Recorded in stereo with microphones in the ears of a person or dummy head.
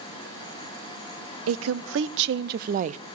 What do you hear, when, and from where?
1.5 s a woman speaking: 80° right, 1.0 m; by 3.0 s 35° right (ahead or behind), 0.6 m